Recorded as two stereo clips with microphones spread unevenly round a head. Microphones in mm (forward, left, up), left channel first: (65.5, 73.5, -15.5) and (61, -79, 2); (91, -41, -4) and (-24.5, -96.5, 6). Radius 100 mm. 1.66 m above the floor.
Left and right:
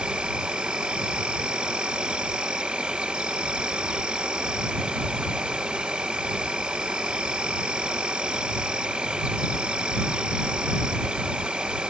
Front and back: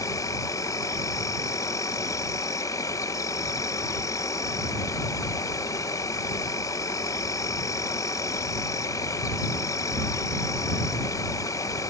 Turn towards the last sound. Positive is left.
turn(degrees=-25)